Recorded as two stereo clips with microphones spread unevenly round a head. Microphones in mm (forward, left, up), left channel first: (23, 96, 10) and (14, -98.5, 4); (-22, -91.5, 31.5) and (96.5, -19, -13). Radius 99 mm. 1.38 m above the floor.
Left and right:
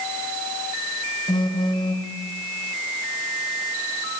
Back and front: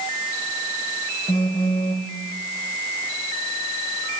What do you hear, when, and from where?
1.3 s a phone buzzing: 155° left, 2.5 m